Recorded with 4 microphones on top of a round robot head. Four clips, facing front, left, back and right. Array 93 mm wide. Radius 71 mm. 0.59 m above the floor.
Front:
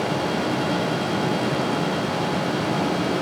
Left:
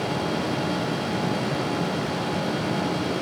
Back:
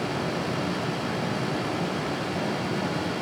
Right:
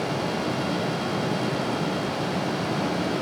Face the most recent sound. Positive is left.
No sound to turn to.